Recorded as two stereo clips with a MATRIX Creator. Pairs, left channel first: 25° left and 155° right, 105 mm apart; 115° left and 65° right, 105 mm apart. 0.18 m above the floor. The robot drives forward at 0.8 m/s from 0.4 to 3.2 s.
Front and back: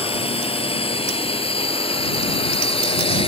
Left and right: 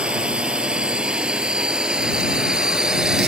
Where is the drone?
10° left; by 3.3 s 15° left.